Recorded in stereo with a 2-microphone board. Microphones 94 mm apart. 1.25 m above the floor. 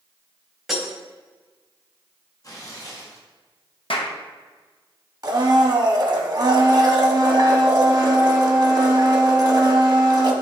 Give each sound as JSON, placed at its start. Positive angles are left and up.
{"t": 0.7, "sound": "breaking glass", "side_deg": -5, "distance_m": 2.5}
{"t": 2.4, "sound": "tearing paper", "side_deg": 35, "distance_m": 1.8}
{"t": 3.9, "sound": "a clap", "side_deg": 70, "distance_m": 1.0}
{"t": 5.2, "sound": "a blender", "side_deg": -40, "distance_m": 1.1}